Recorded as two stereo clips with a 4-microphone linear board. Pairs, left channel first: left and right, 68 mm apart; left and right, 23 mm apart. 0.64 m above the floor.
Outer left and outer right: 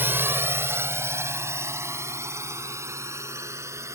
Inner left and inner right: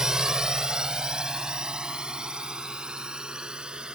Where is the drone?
30° right (ahead or behind); by 4.0 s 45° right (ahead or behind).